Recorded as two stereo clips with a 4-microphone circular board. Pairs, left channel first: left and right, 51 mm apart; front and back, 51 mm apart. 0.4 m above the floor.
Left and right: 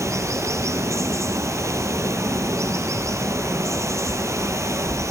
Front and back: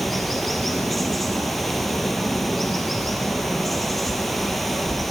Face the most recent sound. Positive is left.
turn(degrees=-90)